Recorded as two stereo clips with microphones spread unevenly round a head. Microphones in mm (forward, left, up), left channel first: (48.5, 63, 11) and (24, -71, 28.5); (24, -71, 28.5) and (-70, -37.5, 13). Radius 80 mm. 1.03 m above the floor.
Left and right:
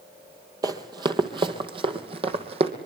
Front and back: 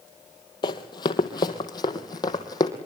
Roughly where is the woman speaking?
No woman speaking in this recording.